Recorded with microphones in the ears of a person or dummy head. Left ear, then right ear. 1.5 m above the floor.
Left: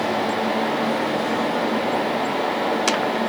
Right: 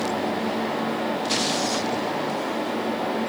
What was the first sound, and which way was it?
Only background noise.